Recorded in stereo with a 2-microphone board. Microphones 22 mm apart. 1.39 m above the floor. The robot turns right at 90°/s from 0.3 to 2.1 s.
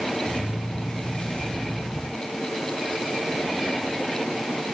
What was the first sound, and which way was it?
Only background noise.